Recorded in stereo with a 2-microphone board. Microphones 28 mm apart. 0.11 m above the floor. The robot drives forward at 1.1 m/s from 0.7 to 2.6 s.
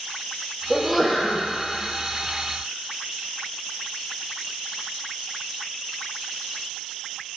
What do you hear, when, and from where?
0.7 s a sneeze: 5° left (ahead or behind), 3 m